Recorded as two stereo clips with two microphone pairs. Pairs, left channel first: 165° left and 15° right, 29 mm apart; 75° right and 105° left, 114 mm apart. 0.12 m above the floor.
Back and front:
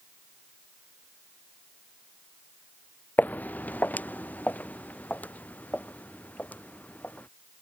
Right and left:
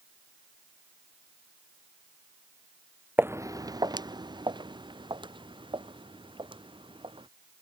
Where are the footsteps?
175° left; by 7.3 s 145° left.